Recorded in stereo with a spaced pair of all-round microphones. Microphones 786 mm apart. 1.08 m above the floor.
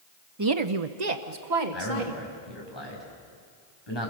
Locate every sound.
0.4 s a woman speaking: 25° right (ahead or behind), 0.7 m; by 2.2 s 75° right (ahead or behind), 2.5 m
1.7 s a man speaking: 30° left (ahead or behind), 6 m